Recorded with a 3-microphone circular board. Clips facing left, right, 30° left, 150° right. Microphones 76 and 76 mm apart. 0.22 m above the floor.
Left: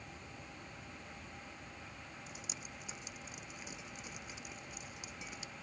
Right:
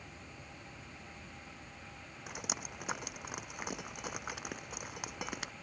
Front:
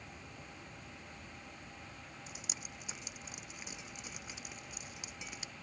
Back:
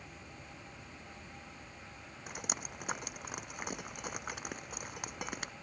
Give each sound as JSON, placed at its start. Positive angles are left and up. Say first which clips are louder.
{"t": 2.3, "sound": "dripping", "louder": "right 7 dB, back 7 dB", "azimuth_deg": -115}